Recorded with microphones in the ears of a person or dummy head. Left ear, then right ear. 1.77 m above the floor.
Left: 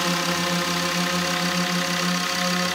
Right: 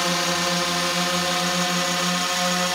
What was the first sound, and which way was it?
A drone, 25° right (ahead or behind).